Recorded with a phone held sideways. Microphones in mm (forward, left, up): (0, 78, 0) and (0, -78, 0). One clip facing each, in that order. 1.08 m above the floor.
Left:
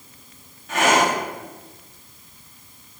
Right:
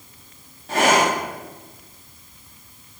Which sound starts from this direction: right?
Breathing, at 0.7 s.